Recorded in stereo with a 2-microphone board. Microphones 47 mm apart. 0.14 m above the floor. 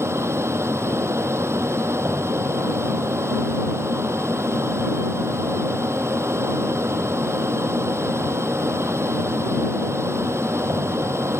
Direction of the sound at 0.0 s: 70° right (ahead or behind).